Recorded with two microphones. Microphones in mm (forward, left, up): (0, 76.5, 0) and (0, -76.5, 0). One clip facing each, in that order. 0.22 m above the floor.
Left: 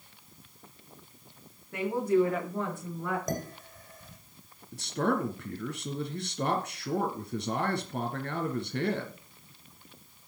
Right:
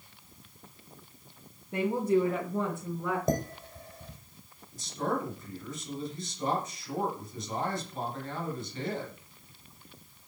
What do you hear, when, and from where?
1.7 s a woman speaking: 20° right (ahead or behind), 3 m; by 3.2 s 5° right (ahead or behind), 4 m
3.3 s dishes clattering: 30° right (ahead or behind), 5.5 m
4.7 s a man speaking: 70° left (ahead or behind), 3 m